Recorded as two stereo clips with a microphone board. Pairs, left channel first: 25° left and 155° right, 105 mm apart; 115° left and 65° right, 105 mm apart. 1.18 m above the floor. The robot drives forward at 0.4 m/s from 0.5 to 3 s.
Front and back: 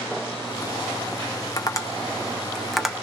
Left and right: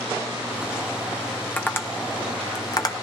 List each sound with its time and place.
1.6 s tapping: 50° left, 0.7 m; by 2.9 s 120° left, 0.7 m